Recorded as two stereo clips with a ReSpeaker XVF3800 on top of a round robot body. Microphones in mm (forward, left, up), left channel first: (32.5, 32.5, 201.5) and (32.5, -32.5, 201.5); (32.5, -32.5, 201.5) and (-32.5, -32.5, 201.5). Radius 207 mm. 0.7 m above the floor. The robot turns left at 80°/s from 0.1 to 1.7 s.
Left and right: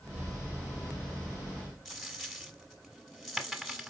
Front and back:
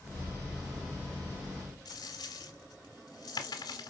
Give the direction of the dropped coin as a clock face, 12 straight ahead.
12 o'clock.